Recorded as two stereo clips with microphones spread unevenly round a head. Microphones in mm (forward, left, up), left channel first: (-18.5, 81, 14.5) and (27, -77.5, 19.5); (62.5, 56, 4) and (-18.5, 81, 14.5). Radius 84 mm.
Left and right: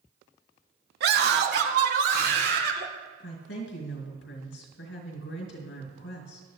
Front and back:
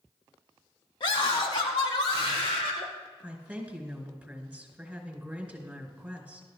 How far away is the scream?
About 1.5 m.